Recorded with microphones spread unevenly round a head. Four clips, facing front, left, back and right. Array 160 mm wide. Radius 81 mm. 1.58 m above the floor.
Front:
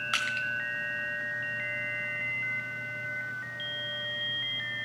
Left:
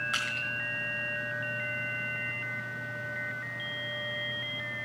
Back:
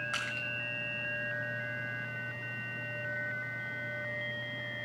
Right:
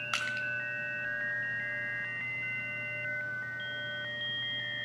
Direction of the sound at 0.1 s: 70° right.